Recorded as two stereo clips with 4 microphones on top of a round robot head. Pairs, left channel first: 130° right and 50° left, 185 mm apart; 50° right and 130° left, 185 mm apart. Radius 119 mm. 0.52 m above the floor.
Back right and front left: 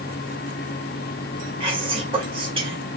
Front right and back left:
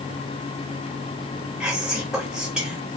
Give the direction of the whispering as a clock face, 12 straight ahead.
10 o'clock.